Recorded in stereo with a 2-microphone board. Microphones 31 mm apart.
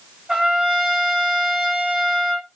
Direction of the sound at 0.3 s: 30° right (ahead or behind).